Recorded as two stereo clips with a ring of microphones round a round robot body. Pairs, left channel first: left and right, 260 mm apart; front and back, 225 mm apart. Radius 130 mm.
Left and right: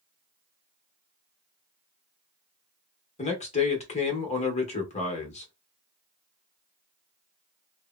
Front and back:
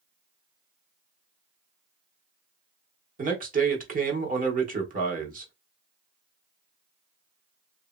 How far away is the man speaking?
About 1.1 m.